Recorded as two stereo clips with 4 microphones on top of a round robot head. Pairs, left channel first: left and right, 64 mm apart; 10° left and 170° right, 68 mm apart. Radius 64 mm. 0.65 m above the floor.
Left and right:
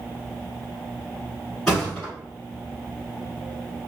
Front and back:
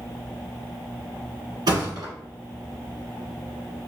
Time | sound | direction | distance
1.7 | a thud | 175° left | 1.5 m